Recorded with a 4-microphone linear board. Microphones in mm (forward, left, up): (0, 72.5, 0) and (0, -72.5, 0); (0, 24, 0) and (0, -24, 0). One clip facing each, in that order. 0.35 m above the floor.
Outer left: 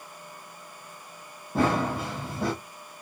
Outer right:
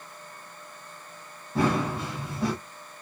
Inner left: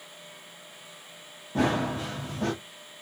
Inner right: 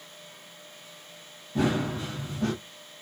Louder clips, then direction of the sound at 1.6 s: Outer left 1 dB, inner left 1 dB; 50° left (ahead or behind).